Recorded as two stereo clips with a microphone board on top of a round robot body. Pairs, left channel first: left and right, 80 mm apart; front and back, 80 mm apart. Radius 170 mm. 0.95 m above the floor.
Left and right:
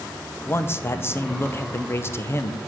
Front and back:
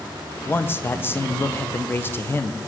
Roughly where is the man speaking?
Ahead left.